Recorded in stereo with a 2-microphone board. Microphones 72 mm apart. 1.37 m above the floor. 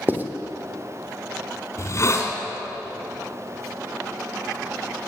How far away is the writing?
About 1.2 m.